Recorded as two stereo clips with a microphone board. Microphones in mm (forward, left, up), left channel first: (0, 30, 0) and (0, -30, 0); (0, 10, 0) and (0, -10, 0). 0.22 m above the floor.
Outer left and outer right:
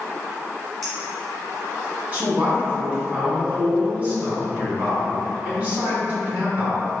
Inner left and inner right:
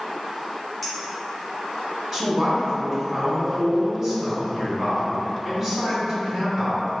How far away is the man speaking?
About 1.5 m.